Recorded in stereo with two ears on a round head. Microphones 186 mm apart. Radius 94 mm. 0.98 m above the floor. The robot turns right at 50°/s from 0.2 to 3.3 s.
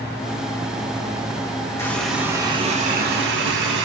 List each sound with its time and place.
1.8 s a running tap: 165° left, 1.6 m; by 3.9 s 120° right, 1.6 m